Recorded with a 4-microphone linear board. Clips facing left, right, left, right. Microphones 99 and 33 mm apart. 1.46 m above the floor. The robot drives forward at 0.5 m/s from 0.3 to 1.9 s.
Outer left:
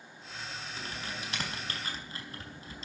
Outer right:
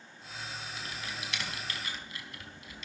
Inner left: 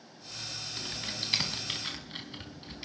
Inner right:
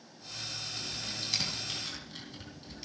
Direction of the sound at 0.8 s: 40° left (ahead or behind).